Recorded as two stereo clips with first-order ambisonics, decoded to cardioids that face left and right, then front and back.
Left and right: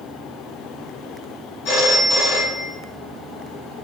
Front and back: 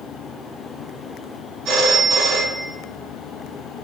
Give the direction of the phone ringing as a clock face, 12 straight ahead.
8 o'clock.